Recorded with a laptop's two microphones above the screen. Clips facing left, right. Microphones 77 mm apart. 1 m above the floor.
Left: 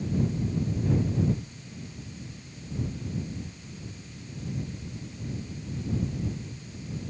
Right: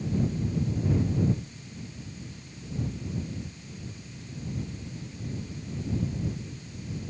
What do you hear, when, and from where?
Only background noise.